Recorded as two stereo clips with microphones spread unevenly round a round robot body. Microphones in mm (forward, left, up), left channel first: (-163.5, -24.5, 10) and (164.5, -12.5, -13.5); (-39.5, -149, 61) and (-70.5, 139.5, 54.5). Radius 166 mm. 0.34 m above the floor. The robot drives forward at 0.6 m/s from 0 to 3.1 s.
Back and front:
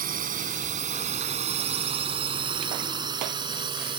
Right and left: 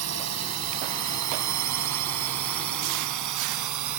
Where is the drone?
65° left; by 4.0 s 80° left.